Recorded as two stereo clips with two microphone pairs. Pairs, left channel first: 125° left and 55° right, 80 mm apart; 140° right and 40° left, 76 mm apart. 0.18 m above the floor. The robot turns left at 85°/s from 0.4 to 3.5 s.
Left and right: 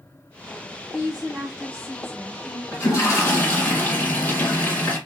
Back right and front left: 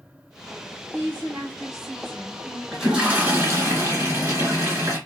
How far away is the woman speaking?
About 1.9 m.